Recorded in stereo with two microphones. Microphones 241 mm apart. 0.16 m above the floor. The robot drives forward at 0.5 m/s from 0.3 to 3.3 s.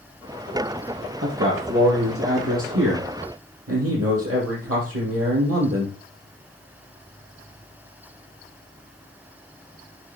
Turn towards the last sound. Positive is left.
turn(degrees=-75)  # may be behind; listen again after turning